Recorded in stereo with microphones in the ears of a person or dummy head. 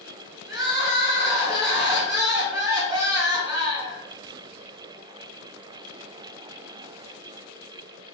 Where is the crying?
20° right (ahead or behind), 0.9 m.